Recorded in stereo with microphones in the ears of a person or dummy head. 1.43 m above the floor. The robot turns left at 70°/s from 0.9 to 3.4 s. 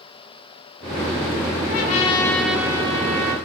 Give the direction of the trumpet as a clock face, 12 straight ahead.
10 o'clock.